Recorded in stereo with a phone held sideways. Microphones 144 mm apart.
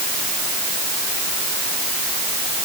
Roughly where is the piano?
No piano in this recording.